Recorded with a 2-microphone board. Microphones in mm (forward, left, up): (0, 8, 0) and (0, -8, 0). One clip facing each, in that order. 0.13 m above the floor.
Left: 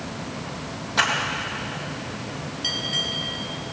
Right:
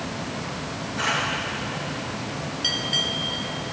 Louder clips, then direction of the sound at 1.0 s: Left 5 dB; 70° left (ahead or behind).